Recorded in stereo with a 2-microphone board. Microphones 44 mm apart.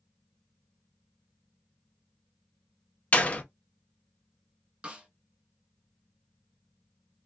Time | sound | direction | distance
3.1 | a door slam | 30° left (ahead or behind) | 0.7 m
4.8 | a snare drum | 25° right (ahead or behind) | 1.2 m